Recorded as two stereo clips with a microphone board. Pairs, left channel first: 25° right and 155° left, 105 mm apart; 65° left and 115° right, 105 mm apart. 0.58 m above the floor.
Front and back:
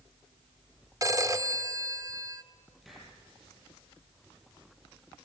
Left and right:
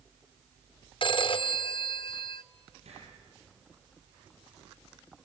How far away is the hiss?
About 7.5 m.